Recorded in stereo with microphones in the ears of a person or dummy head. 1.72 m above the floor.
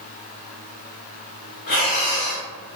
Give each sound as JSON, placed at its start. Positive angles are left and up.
{"t": 1.7, "sound": "breathing", "side_deg": 55, "distance_m": 1.0}